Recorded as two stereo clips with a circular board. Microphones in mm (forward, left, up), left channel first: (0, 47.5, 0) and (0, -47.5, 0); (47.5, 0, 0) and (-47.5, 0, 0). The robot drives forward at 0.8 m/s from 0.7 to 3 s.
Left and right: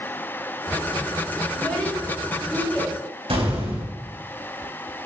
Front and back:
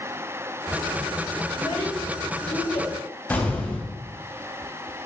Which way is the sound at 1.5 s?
15° left.